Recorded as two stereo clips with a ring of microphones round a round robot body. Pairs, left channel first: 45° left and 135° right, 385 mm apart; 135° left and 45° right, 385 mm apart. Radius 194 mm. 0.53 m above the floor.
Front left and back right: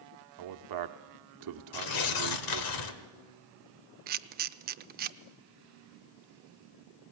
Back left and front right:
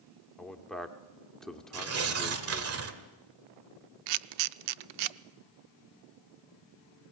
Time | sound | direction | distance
0.4 | a man speaking | 135° right | 1.2 m
1.7 | tearing paper | 10° left | 1.7 m
4.1 | a camera shutter | 65° right | 0.6 m